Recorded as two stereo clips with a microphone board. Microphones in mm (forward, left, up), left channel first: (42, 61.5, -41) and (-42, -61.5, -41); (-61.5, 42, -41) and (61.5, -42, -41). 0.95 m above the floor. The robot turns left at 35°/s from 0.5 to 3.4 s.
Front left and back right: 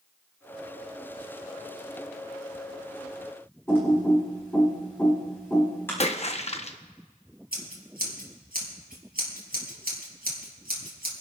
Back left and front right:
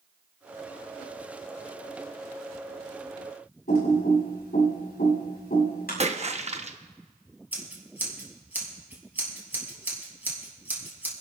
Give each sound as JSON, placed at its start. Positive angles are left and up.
{"t": 3.7, "sound": "typing on a keyboard", "azimuth_deg": 130, "distance_m": 6.5}
{"t": 6.0, "sound": "a splash", "azimuth_deg": 10, "distance_m": 0.8}
{"t": 7.5, "sound": "scissors", "azimuth_deg": -115, "distance_m": 3.0}